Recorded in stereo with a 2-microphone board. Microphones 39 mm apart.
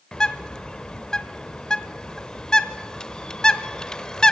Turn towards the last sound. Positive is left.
turn(degrees=15)  # may be behind; listen again after turning